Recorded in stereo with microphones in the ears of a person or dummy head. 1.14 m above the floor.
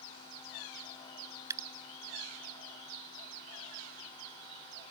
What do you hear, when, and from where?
1.5 s dripping: 20° right (ahead or behind)